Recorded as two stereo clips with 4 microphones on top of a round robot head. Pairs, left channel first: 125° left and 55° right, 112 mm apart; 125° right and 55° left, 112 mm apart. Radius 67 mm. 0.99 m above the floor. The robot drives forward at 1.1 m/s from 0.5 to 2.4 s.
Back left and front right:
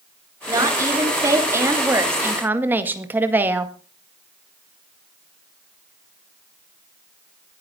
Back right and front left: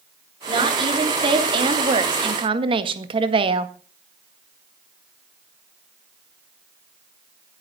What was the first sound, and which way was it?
A woman speaking, 5° left.